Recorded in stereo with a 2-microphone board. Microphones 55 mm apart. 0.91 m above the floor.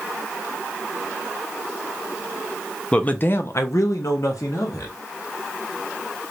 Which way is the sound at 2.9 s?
20° left (ahead or behind).